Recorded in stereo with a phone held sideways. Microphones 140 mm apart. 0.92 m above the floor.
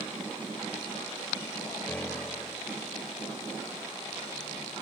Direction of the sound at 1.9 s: 10° left (ahead or behind).